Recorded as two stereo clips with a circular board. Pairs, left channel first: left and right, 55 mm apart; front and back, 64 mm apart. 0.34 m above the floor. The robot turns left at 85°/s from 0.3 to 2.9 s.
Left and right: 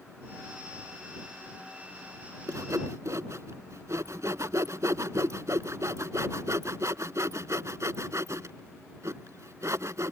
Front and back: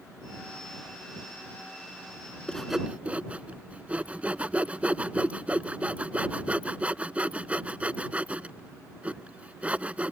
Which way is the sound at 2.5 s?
75° right.